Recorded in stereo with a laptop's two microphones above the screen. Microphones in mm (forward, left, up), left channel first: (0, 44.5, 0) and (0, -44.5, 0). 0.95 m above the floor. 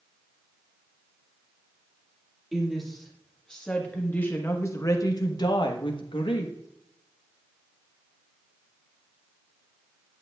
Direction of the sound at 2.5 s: 5° right (ahead or behind).